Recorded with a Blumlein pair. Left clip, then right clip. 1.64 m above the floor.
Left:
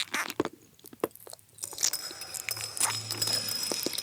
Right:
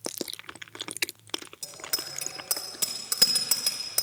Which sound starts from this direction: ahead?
A bicycle bell, at 1.6 s.